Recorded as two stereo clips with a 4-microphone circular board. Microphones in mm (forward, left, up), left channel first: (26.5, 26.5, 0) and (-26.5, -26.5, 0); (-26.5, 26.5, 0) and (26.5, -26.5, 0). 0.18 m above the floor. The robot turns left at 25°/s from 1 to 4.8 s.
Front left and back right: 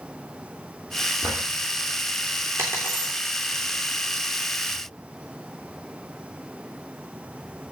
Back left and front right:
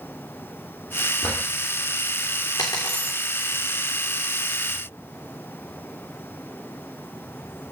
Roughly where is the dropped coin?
Behind.